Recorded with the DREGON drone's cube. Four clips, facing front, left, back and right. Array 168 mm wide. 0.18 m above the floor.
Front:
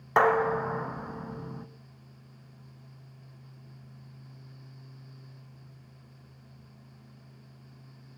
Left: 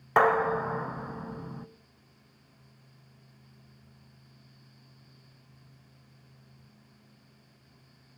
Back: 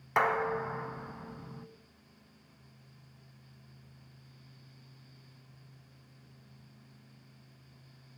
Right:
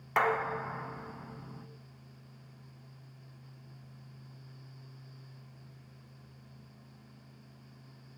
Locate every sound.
0.2 s dishes clattering: 50° left, 0.8 m